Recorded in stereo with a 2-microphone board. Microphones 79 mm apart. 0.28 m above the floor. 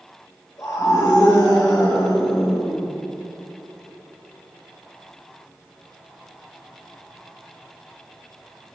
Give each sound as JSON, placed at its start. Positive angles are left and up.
{"t": 0.6, "sound": "a scream", "side_deg": 50, "distance_m": 4.5}